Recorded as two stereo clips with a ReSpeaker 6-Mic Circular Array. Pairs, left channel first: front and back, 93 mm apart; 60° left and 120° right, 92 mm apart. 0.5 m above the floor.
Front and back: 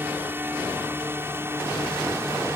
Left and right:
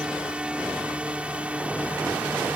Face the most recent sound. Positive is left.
turn(degrees=180)